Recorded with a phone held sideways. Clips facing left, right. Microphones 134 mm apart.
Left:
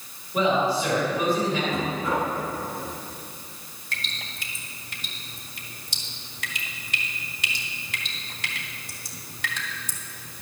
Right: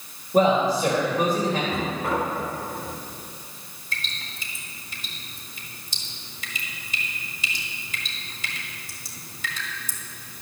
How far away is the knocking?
About 5 m.